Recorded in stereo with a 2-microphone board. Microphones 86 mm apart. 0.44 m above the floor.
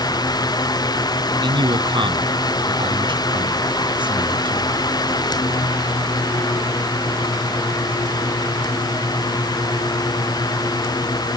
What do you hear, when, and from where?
1.4 s a man speaking: 70° right (ahead or behind); by 4.8 s 65° right (ahead or behind)